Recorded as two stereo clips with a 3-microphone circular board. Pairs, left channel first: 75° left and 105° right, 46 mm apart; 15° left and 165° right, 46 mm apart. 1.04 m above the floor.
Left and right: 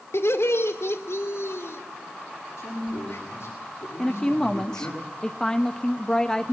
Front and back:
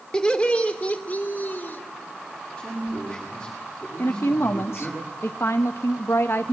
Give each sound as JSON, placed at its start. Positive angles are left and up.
{"t": 0.1, "sound": "laughter", "azimuth_deg": 85, "distance_m": 2.5}
{"t": 2.6, "sound": "a man speaking", "azimuth_deg": 90, "distance_m": 9.0}
{"t": 4.0, "sound": "a woman speaking", "azimuth_deg": -5, "distance_m": 0.8}